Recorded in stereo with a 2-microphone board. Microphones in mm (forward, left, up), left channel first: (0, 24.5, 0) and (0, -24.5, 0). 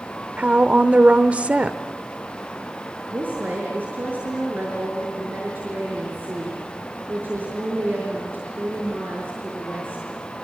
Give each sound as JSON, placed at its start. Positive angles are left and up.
{"t": 0.4, "sound": "a woman speaking", "side_deg": -30, "distance_m": 0.9}
{"t": 3.1, "sound": "a woman speaking", "side_deg": -40, "distance_m": 5.5}